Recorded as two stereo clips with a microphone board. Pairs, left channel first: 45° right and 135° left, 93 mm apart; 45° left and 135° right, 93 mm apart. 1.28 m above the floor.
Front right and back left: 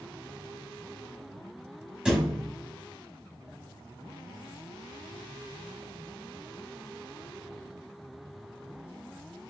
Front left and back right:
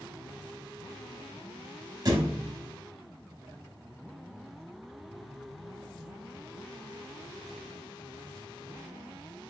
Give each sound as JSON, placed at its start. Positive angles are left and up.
{"t": 2.0, "sound": "a thud", "azimuth_deg": -150, "distance_m": 1.0}